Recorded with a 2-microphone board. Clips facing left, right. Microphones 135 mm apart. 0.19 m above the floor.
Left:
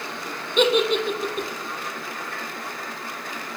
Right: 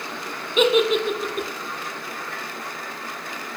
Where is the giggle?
5° right (ahead or behind), 0.6 m.